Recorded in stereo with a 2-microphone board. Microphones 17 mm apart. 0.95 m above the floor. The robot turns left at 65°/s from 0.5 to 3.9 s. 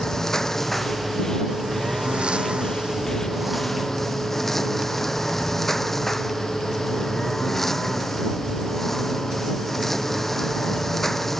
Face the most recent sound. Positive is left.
turn(degrees=170)